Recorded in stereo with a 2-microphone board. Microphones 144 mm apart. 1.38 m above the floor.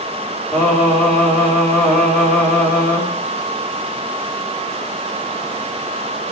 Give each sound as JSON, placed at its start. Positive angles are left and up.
{"t": 0.5, "sound": "singing", "side_deg": 15, "distance_m": 3.5}